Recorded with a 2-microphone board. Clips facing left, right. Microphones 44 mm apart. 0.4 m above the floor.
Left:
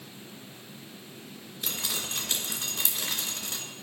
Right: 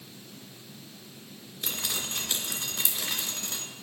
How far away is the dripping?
About 1.8 m.